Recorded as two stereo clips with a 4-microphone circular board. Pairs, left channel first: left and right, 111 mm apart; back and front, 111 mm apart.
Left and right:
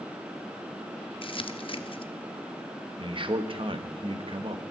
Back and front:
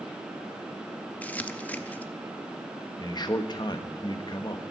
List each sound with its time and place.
1.2 s crumpling: 105° left, 0.7 m
3.0 s a man speaking: 130° right, 1.2 m